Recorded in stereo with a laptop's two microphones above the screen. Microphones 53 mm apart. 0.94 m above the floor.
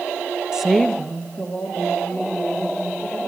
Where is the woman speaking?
15° right (ahead or behind), 0.5 m; by 3.2 s 30° left (ahead or behind), 4 m.